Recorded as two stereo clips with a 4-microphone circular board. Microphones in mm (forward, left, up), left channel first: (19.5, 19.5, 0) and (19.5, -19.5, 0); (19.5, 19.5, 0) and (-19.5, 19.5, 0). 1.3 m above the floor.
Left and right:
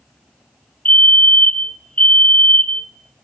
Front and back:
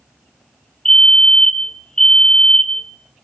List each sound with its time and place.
0.8 s a fire alarm: 65° left, 1.3 m